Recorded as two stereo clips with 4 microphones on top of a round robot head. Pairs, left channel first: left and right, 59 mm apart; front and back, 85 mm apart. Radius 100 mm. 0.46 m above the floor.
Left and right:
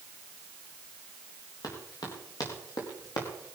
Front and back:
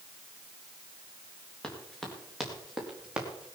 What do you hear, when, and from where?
1.6 s running footsteps: 80° left, 5.5 m; by 3.6 s 105° left, 4.5 m